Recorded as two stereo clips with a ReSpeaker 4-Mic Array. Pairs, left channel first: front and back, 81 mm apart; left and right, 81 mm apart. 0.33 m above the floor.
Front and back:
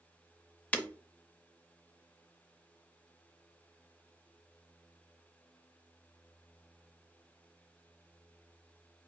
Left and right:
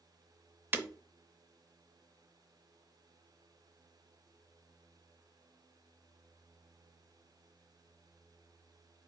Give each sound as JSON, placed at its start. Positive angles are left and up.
{"t": 0.7, "sound": "breaking glass", "azimuth_deg": -55, "distance_m": 0.5}